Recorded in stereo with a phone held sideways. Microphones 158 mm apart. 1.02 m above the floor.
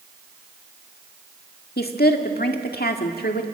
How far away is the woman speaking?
About 1.9 m.